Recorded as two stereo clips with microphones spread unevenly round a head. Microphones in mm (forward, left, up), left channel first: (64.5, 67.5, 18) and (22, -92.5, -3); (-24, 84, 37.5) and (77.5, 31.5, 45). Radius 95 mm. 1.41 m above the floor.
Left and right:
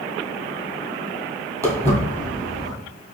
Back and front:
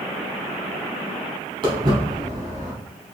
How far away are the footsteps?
About 1.7 m.